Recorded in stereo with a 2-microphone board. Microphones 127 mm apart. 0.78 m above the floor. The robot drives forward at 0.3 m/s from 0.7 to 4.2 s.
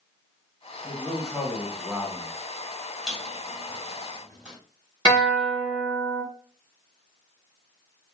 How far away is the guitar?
About 2.5 m.